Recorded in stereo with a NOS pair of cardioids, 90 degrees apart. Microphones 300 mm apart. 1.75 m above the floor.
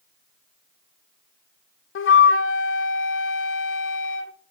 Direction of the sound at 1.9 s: 45° left.